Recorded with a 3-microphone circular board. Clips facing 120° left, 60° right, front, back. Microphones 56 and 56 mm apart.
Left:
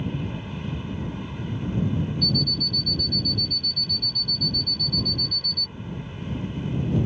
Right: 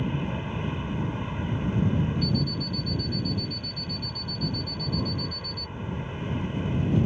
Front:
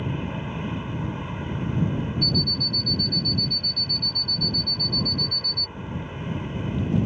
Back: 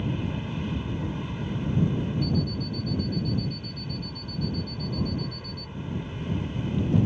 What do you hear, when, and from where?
0.0 s an aircraft: 25° right
2.2 s an alarm clock: 15° left